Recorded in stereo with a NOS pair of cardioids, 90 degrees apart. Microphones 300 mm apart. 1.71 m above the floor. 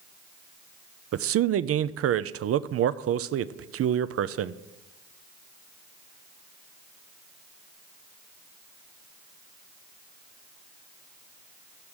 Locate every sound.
1.1 s a man speaking: 50° right, 0.6 m